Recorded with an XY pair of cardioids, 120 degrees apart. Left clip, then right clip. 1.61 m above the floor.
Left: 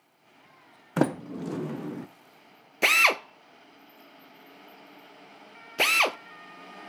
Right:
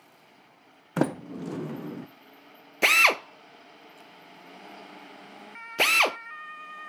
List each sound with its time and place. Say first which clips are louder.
1.0 s a sliding door: left 1 dB; 5° left, 0.5 m
2.8 s a drill: right 1 dB; 5° right, 0.6 m